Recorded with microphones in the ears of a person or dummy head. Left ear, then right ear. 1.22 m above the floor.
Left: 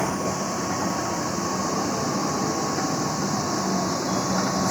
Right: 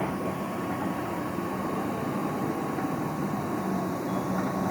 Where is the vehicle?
80° left; by 4.7 s 75° left (ahead or behind).